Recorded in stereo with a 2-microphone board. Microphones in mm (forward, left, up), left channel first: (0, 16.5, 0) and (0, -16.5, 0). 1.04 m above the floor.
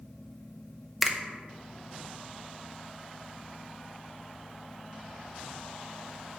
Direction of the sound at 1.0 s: 10° right (ahead or behind).